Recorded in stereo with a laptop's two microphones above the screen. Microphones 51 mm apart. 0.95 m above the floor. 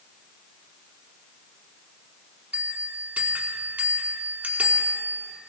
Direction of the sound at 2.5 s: 30° right (ahead or behind).